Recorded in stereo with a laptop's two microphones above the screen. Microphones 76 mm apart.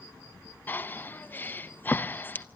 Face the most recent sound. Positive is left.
turn(degrees=25)  # may be behind; listen again after turning